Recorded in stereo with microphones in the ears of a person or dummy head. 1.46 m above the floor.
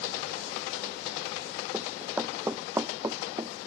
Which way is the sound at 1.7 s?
5° right (ahead or behind).